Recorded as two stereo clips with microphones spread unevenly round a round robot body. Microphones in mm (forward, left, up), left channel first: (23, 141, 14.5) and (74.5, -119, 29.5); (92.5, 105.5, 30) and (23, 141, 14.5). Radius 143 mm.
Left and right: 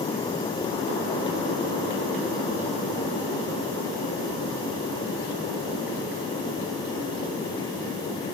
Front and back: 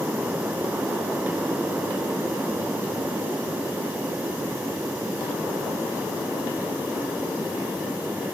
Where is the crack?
No crack in this recording.